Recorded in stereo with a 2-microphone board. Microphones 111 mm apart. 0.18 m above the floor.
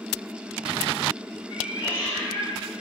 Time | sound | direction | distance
1.5 | a cat meowing | 15° left (ahead or behind) | 4.5 m